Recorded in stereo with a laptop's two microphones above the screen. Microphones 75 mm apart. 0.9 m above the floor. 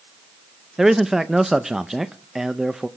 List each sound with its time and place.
0.8 s a man speaking: 5° right (ahead or behind), 0.6 m